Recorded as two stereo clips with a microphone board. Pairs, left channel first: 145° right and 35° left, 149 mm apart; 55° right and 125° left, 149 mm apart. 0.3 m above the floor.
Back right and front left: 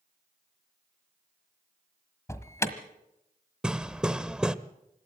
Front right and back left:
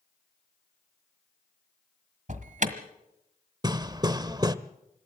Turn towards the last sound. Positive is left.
turn(degrees=115)